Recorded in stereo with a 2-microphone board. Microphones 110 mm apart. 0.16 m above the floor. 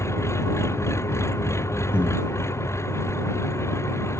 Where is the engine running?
25° left (ahead or behind).